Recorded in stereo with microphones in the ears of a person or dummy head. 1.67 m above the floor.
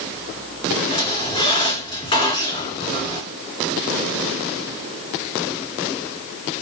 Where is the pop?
I don't hear a pop.